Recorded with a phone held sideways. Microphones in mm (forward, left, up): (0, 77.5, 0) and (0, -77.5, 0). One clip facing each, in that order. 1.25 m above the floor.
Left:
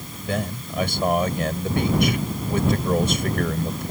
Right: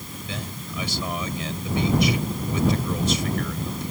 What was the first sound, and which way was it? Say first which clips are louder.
A man speaking: left 9 dB; 55° left (ahead or behind).